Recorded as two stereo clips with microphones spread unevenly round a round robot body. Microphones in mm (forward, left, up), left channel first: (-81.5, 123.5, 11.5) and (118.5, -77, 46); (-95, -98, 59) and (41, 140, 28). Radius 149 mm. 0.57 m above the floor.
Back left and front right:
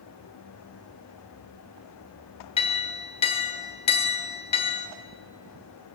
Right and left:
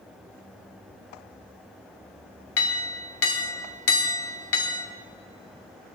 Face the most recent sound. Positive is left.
turn(degrees=-160)